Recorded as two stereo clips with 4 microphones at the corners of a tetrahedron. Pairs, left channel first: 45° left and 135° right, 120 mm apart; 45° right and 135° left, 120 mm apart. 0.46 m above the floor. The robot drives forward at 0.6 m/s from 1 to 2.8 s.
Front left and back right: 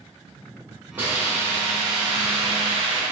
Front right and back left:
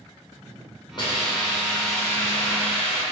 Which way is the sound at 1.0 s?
65° right.